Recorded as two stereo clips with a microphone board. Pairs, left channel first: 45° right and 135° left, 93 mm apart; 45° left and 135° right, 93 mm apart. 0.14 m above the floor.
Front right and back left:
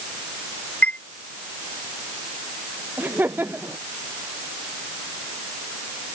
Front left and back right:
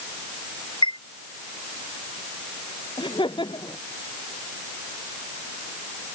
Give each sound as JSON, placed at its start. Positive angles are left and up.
{"t": 0.8, "sound": "a chime", "azimuth_deg": 30}
{"t": 3.0, "sound": "laughter", "azimuth_deg": 65}